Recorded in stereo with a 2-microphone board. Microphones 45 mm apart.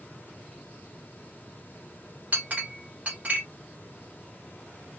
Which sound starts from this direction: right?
A clink, at 2.3 s.